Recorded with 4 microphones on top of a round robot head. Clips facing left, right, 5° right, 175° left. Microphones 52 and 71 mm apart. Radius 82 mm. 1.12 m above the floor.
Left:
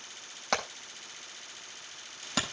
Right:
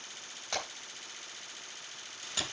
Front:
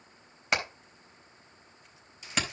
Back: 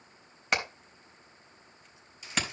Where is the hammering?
85° left, 4 m.